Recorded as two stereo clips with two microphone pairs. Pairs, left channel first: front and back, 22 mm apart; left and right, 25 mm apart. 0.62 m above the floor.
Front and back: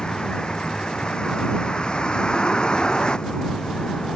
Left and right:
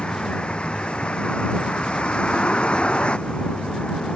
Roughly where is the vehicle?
Ahead left.